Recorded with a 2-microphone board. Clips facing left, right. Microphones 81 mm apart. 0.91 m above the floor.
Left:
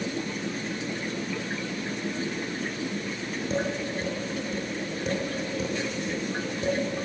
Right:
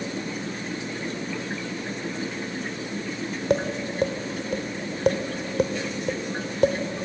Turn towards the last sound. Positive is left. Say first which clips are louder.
# right 5 dB
turn(degrees=-70)  # may be behind; listen again after turning